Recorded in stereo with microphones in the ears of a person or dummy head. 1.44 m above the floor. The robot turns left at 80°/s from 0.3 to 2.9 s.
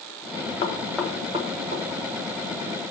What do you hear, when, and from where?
0.6 s knocking: 30° left (ahead or behind), 0.9 m; by 1.8 s 70° right (ahead or behind), 0.9 m